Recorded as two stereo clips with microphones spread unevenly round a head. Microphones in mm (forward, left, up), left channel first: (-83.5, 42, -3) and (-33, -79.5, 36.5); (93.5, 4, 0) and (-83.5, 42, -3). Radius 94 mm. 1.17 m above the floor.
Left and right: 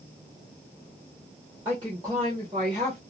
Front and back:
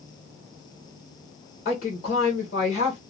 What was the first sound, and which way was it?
A woman speaking, 5° left.